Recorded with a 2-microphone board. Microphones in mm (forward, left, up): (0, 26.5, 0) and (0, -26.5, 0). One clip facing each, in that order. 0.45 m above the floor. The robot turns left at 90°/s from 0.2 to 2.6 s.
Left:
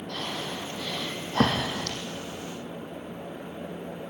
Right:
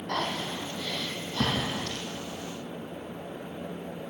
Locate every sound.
0.1 s breathing: 55° right (ahead or behind), 3.5 m; by 2.0 s 75° left (ahead or behind), 3.5 m